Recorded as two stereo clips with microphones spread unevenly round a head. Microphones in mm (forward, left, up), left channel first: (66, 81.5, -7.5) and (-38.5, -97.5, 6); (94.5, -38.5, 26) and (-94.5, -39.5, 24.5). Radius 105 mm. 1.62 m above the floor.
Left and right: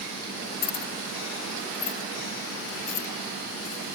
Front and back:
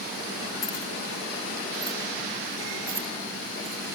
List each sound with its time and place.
0.6 s keys jangling: 75° left; by 4.0 s 115° left